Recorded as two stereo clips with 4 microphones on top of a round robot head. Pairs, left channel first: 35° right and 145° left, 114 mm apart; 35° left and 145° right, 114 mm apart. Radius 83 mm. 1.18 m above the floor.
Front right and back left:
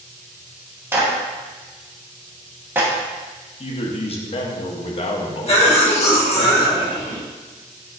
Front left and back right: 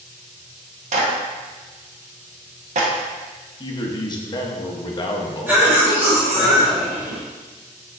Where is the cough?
70° right, 1.4 m.